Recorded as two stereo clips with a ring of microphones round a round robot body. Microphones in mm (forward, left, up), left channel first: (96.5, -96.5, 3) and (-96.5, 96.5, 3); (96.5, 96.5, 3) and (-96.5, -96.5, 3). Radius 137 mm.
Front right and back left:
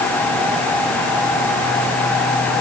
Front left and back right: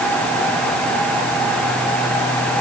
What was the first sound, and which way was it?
Only background noise.